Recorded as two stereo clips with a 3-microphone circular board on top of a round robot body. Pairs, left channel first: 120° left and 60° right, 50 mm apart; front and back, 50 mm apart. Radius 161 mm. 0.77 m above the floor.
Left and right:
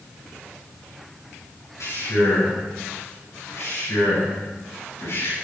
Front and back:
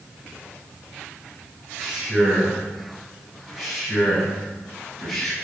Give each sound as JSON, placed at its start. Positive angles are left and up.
{"t": 1.8, "sound": "a man speaking", "azimuth_deg": 105, "distance_m": 8.5}